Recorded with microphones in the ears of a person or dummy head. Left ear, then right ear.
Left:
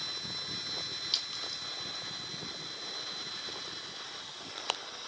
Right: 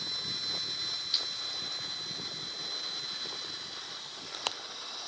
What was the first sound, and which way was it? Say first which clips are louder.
A clink: right 1 dB; 60° left (ahead or behind).